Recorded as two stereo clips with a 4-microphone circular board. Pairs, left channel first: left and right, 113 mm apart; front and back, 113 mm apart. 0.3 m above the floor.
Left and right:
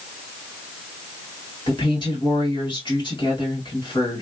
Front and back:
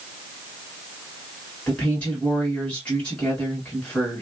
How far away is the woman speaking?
About 1.7 m.